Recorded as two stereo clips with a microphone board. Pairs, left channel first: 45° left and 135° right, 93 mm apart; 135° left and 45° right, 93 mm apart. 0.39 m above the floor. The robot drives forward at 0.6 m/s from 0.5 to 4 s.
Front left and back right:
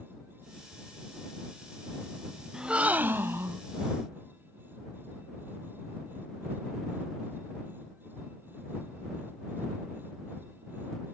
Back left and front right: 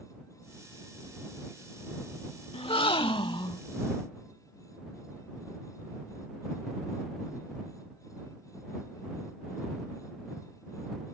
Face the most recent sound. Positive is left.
turn(degrees=165)